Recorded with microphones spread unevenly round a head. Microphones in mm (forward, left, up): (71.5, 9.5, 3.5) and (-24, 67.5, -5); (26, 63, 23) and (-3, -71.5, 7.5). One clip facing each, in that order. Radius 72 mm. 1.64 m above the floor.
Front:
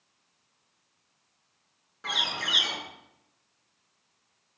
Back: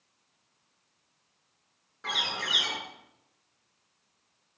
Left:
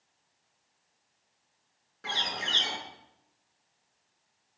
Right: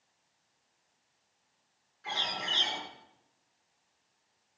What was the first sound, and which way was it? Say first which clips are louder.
A bird: front 1 dB, left 1 dB; 55° left.